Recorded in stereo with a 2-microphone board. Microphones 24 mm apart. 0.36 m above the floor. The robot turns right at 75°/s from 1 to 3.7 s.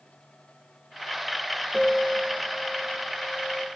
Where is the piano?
10° right, 3 m; by 3.7 s 135° left, 3 m.